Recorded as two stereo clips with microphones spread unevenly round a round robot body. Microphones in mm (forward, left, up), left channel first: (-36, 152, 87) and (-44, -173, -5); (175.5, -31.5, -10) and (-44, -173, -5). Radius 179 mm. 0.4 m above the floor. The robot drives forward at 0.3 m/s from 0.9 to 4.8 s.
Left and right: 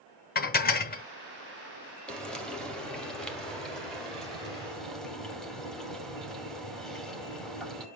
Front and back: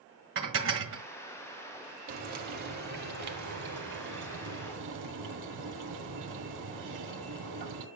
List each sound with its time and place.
0.3 s dishes clattering: 160° left, 1.2 m
2.1 s frying: 175° right, 1.7 m